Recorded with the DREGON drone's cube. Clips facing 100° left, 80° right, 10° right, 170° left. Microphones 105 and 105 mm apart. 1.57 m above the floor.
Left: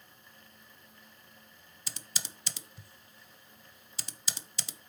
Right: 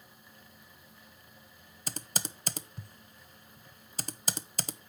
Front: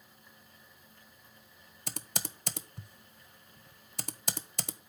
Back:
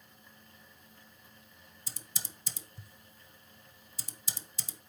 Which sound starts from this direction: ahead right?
Typing on a keyboard, at 1.9 s.